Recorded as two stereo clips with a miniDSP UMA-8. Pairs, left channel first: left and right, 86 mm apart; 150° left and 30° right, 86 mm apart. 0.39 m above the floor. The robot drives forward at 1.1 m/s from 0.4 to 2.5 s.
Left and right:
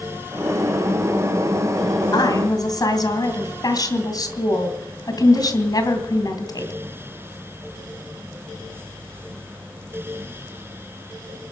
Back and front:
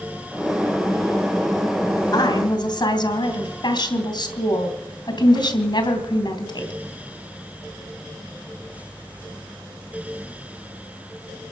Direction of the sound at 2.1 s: 120° left.